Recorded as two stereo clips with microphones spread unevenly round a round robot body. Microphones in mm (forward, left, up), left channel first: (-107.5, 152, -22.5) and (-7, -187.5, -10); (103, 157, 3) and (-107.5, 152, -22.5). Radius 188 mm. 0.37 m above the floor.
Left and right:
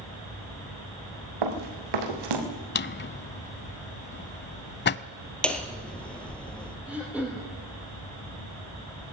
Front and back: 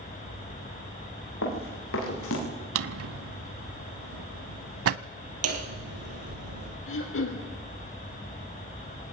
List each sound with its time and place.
1.4 s running footsteps: 50° right, 5 m; by 2.4 s 40° right, 5 m
2.8 s a drawer: 170° left, 0.7 m
5.4 s hammering: 165° right, 3 m
6.9 s throat clearing: 15° left, 4.5 m